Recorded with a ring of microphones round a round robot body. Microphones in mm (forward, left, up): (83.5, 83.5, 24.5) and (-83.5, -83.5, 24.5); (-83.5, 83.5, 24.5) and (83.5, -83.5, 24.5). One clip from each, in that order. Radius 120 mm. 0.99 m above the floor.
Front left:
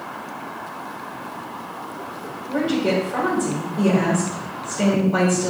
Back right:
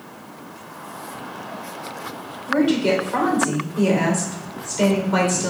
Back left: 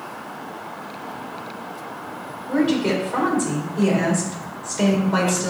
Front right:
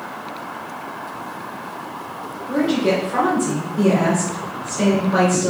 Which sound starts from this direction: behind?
A woman speaking, at 2.5 s.